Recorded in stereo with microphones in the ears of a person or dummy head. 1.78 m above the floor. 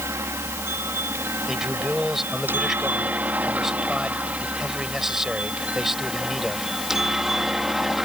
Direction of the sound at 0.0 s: 15° right (ahead or behind).